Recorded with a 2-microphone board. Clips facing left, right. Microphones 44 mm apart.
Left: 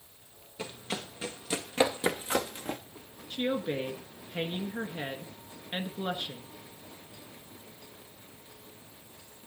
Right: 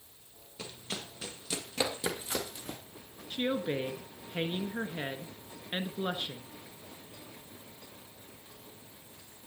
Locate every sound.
0.6 s running footsteps: 20° left (ahead or behind), 3 m; by 2.8 s 45° left (ahead or behind), 1.7 m
3.3 s a woman speaking: 10° right (ahead or behind), 1.3 m